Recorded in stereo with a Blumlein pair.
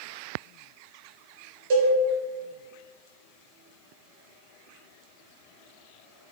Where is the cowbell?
50° right, 0.8 m.